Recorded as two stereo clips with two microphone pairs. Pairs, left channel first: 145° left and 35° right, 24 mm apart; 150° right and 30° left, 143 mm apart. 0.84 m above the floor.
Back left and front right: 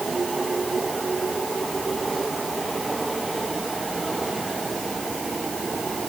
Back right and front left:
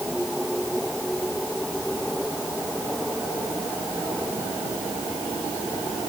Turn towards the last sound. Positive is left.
No sound to turn to.